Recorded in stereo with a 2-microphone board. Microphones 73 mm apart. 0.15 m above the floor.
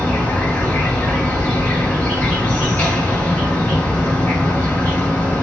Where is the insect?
20° left (ahead or behind), 2.5 m.